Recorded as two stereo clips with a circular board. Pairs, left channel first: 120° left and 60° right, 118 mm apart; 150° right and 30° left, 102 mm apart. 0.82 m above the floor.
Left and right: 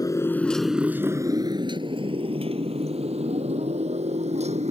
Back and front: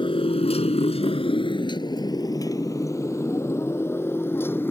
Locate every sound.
0.0 s a motorcycle: straight behind; by 4.7 s 80° right